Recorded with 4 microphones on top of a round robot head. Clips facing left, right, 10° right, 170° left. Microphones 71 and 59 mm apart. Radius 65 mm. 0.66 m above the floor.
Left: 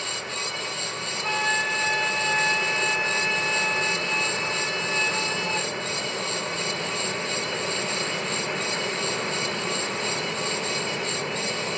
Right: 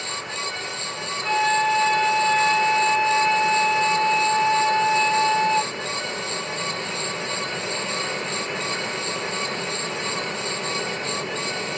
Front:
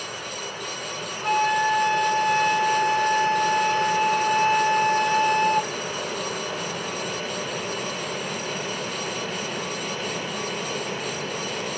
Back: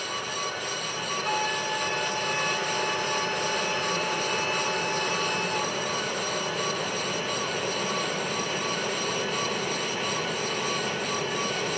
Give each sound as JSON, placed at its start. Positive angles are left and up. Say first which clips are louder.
{"t": 1.2, "sound": "a flute", "louder": "right 6 dB, front 9 dB", "azimuth_deg": 15, "distance_m": 1.4}